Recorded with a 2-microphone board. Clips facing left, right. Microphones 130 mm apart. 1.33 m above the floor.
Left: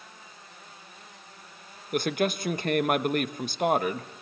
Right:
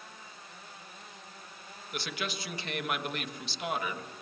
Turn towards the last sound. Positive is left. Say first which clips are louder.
# left 11 dB
turn(degrees=50)  # may be behind; listen again after turning